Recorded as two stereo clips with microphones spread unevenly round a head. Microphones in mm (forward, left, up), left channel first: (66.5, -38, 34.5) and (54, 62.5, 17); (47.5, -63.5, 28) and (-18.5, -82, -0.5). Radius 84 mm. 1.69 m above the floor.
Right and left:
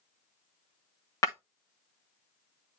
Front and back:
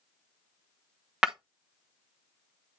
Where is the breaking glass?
60° right, 1.0 m.